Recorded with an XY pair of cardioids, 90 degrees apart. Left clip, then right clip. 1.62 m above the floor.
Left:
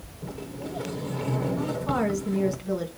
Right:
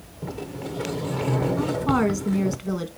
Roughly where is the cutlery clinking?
No cutlery clinking in this recording.